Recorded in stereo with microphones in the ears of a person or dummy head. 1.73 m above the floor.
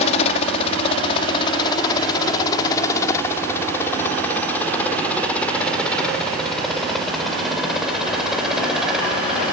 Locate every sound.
0.0 s a helicopter: 40° left (ahead or behind); by 9.5 s centre (ahead or behind)